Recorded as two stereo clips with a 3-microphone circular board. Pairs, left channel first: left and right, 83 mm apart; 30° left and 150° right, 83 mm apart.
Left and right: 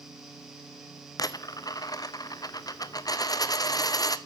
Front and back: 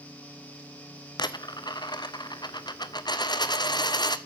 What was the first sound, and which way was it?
A dropped coin, 55° left.